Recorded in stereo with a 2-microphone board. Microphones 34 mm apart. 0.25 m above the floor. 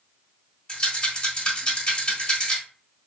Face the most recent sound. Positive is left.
turn(degrees=30)  # may be behind; listen again after turning